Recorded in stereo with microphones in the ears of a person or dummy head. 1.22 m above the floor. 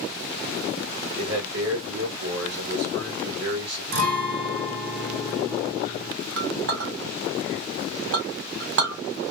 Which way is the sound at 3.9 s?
65° right (ahead or behind).